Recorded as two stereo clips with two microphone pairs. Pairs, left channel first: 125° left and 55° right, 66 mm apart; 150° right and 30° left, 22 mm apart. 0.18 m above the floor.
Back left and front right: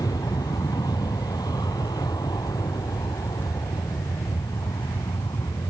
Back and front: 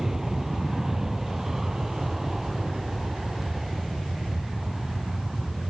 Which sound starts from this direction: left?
An aircraft, at 0.0 s.